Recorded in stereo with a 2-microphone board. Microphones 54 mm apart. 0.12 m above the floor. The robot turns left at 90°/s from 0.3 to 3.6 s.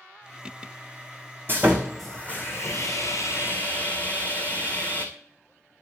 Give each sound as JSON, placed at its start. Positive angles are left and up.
{"t": 1.5, "sound": "sawing", "azimuth_deg": -140, "distance_m": 1.8}